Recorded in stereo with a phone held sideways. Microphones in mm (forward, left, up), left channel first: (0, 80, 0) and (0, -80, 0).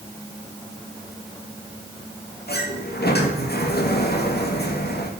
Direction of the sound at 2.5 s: 85° left.